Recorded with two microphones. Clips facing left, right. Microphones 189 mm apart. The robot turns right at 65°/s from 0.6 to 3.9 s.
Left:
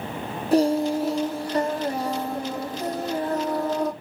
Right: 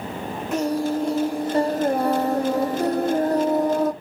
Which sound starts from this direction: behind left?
Singing, at 0.5 s.